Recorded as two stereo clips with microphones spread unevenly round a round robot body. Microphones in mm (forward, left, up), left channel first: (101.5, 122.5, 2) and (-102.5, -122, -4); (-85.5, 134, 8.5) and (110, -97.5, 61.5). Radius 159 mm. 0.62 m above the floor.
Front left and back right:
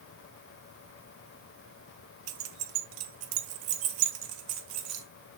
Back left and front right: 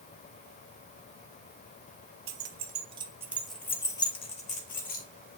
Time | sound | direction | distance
2.3 | keys jangling | 105° right | 1.0 m